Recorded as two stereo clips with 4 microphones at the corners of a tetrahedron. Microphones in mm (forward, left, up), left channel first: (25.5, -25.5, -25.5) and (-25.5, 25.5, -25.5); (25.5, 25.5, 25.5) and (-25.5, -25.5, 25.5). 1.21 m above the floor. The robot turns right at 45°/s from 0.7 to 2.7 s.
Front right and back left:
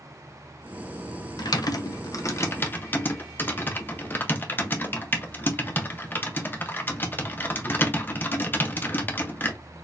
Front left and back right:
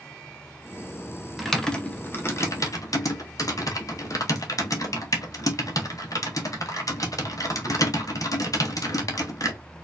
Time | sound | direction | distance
1.4 | typing on a keyboard | 45° right | 0.8 m